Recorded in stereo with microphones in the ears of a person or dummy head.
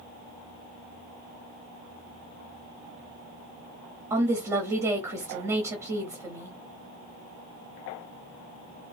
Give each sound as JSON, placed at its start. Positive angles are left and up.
{"t": 4.1, "sound": "a woman speaking", "side_deg": -15, "distance_m": 0.5}